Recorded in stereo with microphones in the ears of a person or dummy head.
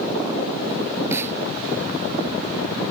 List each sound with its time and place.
1.1 s a snare drum: 15° right (ahead or behind)